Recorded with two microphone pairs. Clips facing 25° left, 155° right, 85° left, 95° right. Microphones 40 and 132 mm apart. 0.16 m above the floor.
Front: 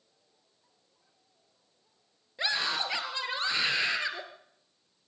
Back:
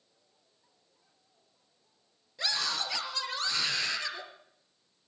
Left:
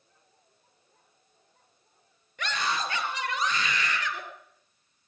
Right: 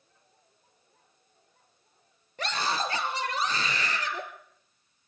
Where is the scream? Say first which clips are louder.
Front 3 dB, right 1 dB; 40° right, 3 m.